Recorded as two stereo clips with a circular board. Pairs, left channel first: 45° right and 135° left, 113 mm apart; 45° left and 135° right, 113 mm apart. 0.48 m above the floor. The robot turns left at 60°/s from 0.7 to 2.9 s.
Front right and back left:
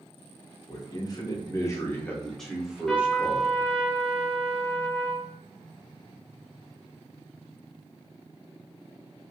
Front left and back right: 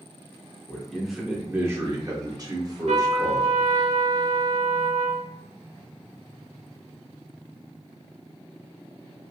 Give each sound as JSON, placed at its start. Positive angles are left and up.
{"t": 0.7, "sound": "a man speaking", "azimuth_deg": -25, "distance_m": 0.8}
{"t": 2.9, "sound": "a trumpet", "azimuth_deg": -135, "distance_m": 0.5}